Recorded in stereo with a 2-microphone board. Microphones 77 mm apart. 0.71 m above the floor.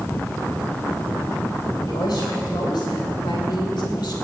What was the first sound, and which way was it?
A woman speaking, 65° left (ahead or behind).